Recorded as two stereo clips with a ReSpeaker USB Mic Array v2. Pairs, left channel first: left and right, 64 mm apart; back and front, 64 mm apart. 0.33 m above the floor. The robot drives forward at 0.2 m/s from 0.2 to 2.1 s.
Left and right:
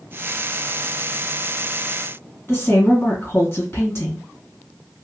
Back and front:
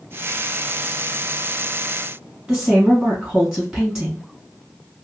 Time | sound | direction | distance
2.5 | a woman speaking | 80° left | 1.8 m